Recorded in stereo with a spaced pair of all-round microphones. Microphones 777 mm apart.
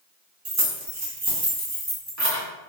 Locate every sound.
0.5 s keys jangling: 20° right (ahead or behind), 0.8 m